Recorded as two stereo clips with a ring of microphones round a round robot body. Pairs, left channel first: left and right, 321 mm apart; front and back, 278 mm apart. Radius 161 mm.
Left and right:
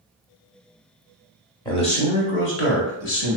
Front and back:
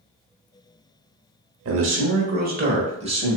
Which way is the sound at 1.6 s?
165° left.